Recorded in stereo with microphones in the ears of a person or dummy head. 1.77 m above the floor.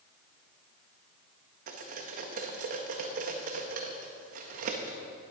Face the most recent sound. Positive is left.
turn(degrees=-50)  # may be behind; listen again after turning